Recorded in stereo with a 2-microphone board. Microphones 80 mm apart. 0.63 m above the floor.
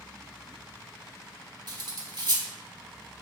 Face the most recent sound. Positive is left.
turn(degrees=-60)  # may be behind; listen again after turning